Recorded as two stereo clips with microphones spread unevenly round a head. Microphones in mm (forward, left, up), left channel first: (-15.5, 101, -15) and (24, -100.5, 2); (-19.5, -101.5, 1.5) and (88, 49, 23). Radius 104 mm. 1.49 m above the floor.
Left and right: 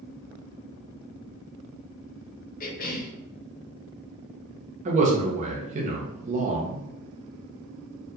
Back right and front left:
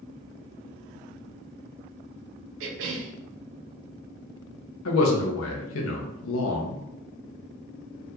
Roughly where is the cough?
Ahead left.